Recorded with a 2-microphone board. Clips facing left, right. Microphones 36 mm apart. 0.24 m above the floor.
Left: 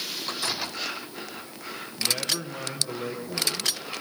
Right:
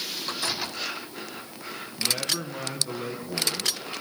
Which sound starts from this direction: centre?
A man speaking, at 2.0 s.